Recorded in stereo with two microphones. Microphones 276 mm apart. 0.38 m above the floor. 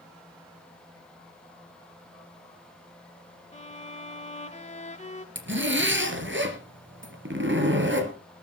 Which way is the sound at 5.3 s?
45° right (ahead or behind).